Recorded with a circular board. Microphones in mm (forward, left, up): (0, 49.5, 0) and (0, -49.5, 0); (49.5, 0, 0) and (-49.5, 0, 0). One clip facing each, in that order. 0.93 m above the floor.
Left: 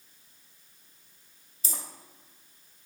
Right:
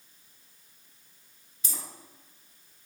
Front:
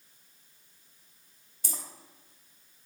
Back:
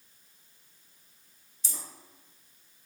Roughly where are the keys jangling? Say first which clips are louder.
Left 3 dB, front 5 dB; ahead left.